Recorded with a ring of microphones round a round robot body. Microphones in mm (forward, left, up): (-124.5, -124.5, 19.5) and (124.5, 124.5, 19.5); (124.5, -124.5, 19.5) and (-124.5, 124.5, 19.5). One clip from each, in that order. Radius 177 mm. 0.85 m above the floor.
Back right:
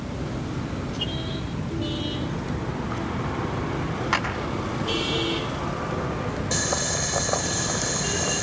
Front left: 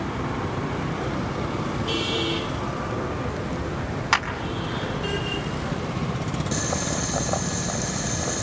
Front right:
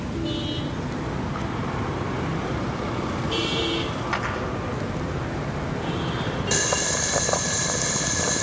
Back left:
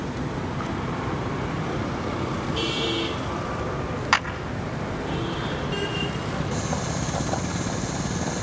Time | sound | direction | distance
4.1 | a clap | 110° left | 5.5 m
6.5 | boiling | 60° right | 1.3 m